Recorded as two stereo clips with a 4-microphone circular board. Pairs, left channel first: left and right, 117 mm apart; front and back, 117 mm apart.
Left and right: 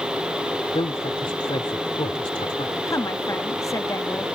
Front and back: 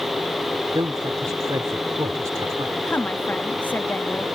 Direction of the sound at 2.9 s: 60° left.